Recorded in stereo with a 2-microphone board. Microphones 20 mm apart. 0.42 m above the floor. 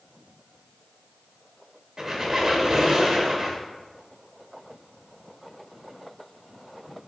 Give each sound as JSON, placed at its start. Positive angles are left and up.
{"t": 2.0, "sound": "a squeak", "side_deg": -30, "distance_m": 0.9}